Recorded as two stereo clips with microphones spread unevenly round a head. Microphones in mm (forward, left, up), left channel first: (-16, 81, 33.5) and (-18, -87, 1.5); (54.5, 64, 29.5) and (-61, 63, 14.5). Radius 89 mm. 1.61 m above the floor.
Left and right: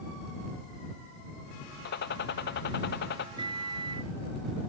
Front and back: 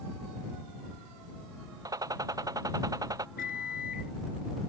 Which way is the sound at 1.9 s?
120° left.